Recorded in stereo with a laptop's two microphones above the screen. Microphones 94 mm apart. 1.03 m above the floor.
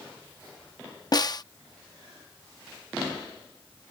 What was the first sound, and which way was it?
A snare drum, 45° left (ahead or behind).